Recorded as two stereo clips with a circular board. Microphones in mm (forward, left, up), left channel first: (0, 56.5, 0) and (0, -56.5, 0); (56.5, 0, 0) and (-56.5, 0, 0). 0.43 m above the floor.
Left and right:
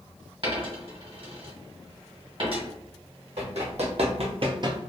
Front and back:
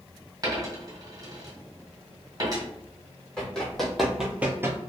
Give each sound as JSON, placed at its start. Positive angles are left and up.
{"t": 0.4, "sound": "a dropped coin", "azimuth_deg": -125, "distance_m": 1.8}
{"t": 3.4, "sound": "running footsteps", "azimuth_deg": -80, "distance_m": 1.3}